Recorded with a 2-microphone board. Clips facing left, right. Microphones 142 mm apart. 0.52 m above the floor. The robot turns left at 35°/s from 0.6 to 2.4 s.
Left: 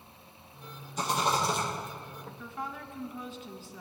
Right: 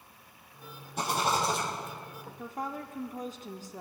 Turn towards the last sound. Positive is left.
turn(degrees=-40)  # may be behind; listen again after turning